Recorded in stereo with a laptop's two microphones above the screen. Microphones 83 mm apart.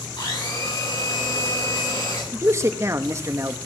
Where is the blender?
80° left, 8 m.